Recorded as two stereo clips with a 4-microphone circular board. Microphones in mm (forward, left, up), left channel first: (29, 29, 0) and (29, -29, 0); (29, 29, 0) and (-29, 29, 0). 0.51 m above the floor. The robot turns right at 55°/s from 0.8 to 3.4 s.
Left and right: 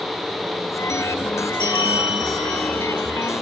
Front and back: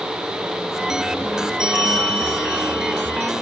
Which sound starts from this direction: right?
A bell, at 1.6 s.